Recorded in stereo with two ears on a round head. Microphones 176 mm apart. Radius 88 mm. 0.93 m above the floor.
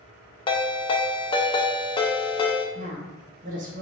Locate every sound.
0.5 s a ringtone: 25° left (ahead or behind), 0.7 m
2.8 s a woman speaking: 40° right (ahead or behind), 1.0 m